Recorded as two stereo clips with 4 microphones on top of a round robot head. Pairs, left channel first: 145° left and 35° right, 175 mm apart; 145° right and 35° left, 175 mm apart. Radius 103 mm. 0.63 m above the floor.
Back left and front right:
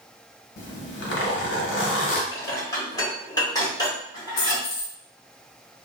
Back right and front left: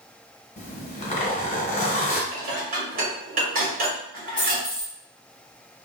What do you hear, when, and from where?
0.6 s a zipper: 160° left, 1.0 m
2.3 s dishes clattering: 75° left, 1.3 m
4.4 s a dropped coin: 135° left, 1.0 m